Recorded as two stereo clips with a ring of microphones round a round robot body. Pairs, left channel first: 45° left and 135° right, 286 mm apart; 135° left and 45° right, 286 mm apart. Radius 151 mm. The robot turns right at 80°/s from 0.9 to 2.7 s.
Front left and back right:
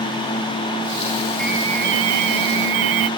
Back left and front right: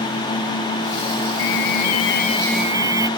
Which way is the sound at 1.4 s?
130° left.